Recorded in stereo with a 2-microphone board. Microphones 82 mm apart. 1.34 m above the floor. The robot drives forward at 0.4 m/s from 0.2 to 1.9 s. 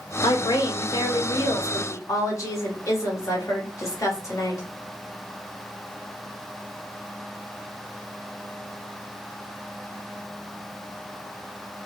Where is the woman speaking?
65° left (ahead or behind), 0.9 m; by 4.6 s 40° left (ahead or behind), 1.3 m.